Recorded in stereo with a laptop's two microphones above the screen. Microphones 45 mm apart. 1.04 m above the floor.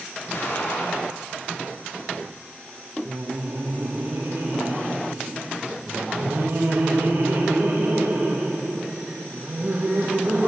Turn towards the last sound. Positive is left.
turn(degrees=-60)  # may be behind; listen again after turning